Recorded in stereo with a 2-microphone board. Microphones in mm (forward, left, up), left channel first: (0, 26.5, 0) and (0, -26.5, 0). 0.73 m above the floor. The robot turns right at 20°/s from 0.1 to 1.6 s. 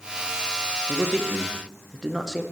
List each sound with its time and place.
0.9 s a man speaking: centre (ahead or behind), 0.8 m; by 2.4 s 10° right (ahead or behind), 0.8 m